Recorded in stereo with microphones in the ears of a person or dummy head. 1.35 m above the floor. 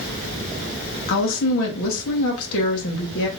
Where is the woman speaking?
75° left (ahead or behind), 1.2 m.